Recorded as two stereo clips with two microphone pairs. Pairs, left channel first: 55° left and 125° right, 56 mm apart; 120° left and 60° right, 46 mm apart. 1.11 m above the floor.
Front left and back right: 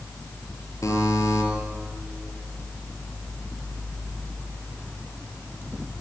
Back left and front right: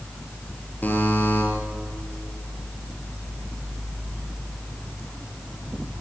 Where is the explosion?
No explosion in this recording.